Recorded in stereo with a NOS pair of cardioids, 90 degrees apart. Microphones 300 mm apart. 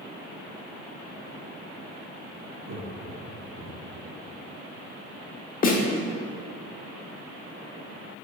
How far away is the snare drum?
About 1.1 m.